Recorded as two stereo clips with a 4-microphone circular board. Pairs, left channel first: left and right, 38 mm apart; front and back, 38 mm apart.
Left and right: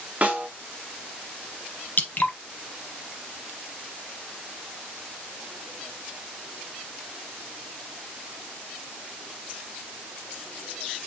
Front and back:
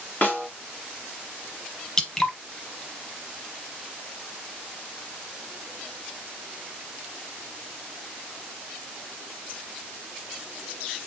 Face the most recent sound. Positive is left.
turn(degrees=70)